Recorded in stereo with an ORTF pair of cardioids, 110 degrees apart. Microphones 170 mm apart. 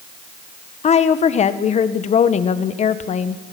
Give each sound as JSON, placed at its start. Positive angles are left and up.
{"t": 0.8, "sound": "a woman speaking", "azimuth_deg": 40, "distance_m": 1.7}